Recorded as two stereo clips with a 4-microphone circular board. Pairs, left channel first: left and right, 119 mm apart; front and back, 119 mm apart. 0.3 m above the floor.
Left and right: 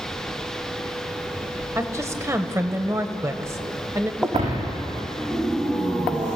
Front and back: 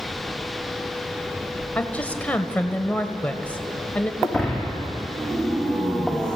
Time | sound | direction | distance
1.8 | a woman speaking | 60° right | 1.6 m
4.2 | breaking glass | 85° right | 7 m